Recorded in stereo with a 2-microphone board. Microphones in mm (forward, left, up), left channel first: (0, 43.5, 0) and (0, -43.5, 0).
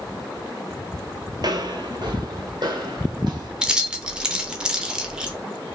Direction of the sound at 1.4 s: 50° right (ahead or behind).